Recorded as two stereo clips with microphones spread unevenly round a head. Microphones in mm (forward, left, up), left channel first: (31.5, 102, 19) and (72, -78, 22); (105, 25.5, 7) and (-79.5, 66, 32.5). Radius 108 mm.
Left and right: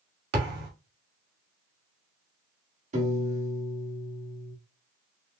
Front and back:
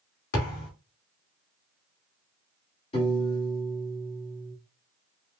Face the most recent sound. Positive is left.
turn(degrees=-65)